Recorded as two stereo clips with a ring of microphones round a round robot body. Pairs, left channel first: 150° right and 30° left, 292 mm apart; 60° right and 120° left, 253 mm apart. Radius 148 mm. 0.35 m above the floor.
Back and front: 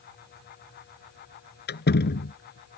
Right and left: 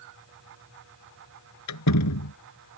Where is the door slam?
95° right.